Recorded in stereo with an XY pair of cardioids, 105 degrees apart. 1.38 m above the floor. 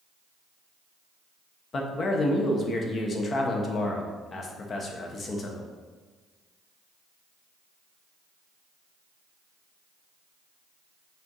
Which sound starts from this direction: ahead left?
A man speaking, at 1.7 s.